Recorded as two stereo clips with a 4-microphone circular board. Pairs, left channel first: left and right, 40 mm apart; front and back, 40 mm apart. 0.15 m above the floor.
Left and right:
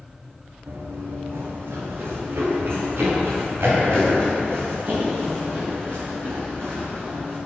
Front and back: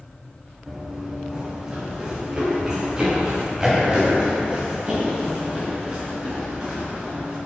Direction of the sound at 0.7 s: 100° right.